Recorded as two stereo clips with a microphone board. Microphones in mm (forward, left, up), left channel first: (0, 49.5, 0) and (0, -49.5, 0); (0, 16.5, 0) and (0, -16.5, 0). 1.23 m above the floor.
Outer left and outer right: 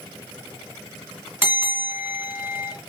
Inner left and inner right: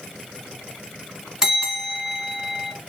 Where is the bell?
20° right (ahead or behind), 1.7 m.